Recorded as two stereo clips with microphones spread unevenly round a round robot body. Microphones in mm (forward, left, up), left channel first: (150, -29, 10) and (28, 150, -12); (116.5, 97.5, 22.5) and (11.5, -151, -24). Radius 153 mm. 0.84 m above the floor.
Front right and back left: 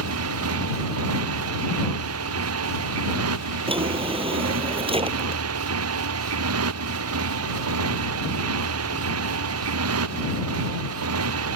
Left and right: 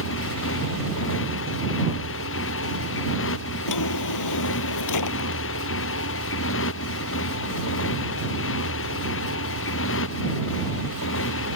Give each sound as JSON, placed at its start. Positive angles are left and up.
{"t": 0.0, "sound": "a motorcycle", "azimuth_deg": 120}
{"t": 3.7, "sound": "a drawer", "azimuth_deg": 60}